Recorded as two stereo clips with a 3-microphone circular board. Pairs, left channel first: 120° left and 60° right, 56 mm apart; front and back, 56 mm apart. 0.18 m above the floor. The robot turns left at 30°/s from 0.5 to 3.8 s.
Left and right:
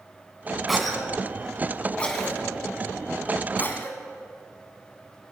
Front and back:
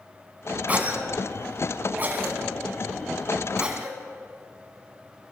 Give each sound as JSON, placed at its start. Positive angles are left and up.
{"t": 0.7, "sound": "a cough", "azimuth_deg": -145, "distance_m": 1.4}